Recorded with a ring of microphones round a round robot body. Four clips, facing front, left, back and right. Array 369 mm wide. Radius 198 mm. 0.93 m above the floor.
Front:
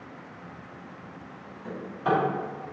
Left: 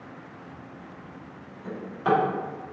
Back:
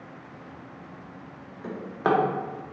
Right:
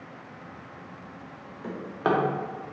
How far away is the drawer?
About 0.5 m.